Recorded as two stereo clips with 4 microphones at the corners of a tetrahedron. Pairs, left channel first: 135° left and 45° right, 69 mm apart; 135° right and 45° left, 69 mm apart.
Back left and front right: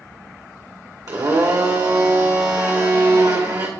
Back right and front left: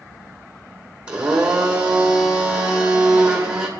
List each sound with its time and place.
1.1 s a blender: 30° right, 2.5 m